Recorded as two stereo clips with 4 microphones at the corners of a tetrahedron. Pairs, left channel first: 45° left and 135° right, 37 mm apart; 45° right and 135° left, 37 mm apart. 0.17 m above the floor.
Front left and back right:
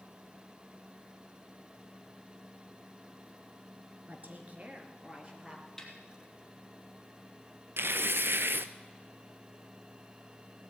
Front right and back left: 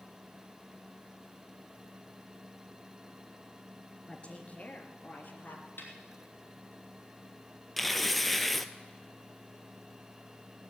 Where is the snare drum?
35° right, 3 m.